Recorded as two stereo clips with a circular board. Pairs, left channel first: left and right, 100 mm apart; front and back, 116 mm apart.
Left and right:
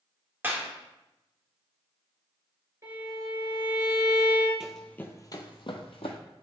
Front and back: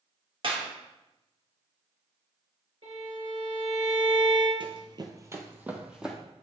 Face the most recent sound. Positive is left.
turn(degrees=95)